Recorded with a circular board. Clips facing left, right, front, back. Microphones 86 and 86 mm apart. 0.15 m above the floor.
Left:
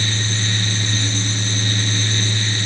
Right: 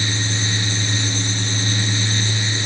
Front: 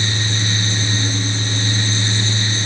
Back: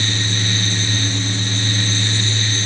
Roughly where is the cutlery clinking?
I don't hear cutlery clinking.